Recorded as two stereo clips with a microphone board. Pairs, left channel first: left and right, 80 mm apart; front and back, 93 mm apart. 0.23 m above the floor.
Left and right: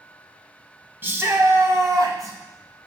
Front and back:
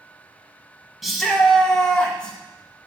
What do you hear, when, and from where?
1.0 s a shout: 90° right, 1.0 m; by 2.4 s 75° right, 1.5 m